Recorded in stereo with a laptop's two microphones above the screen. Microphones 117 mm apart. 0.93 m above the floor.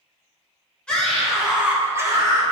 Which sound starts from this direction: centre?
A scream, at 0.9 s.